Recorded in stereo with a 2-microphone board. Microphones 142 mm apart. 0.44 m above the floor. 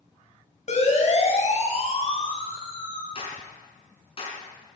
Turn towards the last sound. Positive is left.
turn(degrees=45)  # may be behind; listen again after turning